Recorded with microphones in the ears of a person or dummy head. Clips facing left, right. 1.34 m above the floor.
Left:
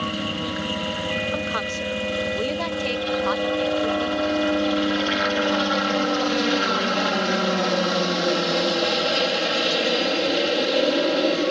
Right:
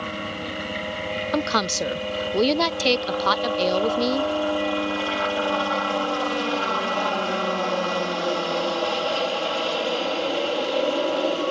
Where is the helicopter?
25° left (ahead or behind).